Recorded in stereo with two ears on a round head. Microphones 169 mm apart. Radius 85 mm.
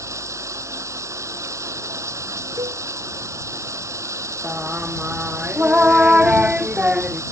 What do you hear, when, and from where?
0.0 s running water: 15° right (ahead or behind)
2.6 s a cowbell: 20° right (ahead or behind)
4.4 s singing: 5° right (ahead or behind)